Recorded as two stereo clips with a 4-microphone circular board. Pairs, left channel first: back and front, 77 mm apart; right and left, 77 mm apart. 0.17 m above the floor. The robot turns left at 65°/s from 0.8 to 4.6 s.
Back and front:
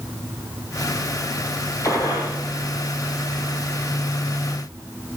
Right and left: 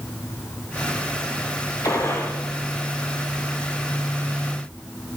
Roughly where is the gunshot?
Behind right.